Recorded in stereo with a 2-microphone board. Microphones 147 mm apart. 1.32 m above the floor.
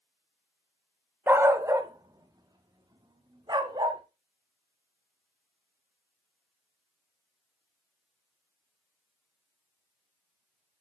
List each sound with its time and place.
1.3 s a dog barking: 15° right (ahead or behind), 0.7 m; by 4.0 s 30° right (ahead or behind), 2.0 m